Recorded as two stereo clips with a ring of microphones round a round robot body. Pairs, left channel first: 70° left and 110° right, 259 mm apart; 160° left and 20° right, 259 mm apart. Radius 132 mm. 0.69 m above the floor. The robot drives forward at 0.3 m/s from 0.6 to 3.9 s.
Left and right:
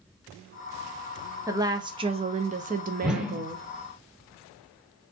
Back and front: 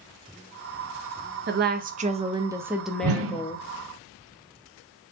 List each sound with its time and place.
1.5 s a woman speaking: 40° right, 0.7 m; by 3.6 s 140° right, 0.7 m
3.0 s a whoosh: 25° right, 0.7 m; by 3.4 s 30° right, 0.6 m